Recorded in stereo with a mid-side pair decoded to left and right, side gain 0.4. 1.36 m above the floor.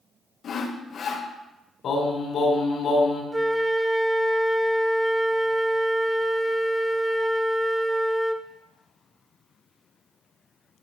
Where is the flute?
10° right, 1.0 m.